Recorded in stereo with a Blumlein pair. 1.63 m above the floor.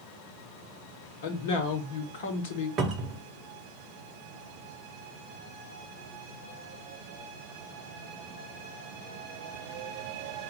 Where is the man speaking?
55° left, 1.2 m.